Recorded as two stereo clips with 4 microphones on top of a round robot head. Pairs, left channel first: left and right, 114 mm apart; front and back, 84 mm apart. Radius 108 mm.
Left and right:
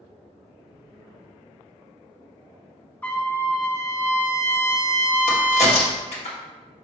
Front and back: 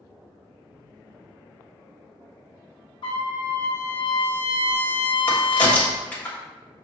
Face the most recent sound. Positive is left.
turn(degrees=70)